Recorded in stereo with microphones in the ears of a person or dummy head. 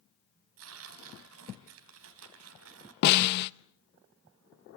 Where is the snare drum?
55° left (ahead or behind), 0.7 m.